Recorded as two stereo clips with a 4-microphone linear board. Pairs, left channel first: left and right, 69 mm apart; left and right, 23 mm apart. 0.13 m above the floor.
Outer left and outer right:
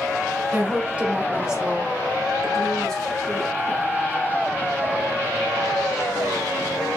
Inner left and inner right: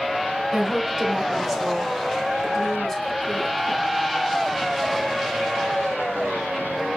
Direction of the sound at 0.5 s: 30° right (ahead or behind).